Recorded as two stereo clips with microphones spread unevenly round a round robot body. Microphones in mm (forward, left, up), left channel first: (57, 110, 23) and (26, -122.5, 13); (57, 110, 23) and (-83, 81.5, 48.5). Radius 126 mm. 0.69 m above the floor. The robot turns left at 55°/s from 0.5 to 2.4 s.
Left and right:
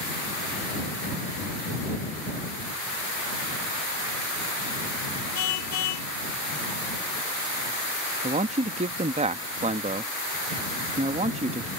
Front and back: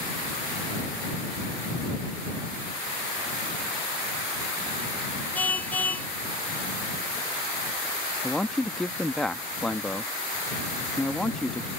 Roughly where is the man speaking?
Ahead right.